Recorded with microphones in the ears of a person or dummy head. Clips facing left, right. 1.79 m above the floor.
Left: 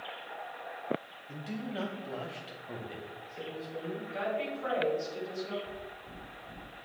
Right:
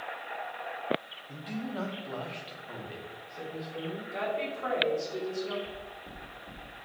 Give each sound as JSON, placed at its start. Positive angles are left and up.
{"t": 1.3, "sound": "a man speaking", "side_deg": 10, "distance_m": 1.0}
{"t": 4.1, "sound": "a woman speaking", "side_deg": -55, "distance_m": 4.5}
{"t": 5.7, "sound": "knocking", "side_deg": -65, "distance_m": 4.0}